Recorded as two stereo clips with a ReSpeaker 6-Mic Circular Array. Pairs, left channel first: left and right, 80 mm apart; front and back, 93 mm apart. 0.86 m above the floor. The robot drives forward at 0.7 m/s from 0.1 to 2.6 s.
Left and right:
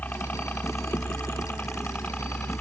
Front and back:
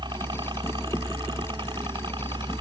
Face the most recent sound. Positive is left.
turn(degrees=160)